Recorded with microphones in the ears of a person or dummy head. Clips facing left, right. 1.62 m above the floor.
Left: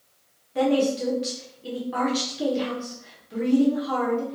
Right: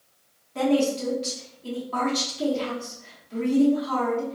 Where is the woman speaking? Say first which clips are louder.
Left 1 dB; 15° left (ahead or behind), 0.7 m.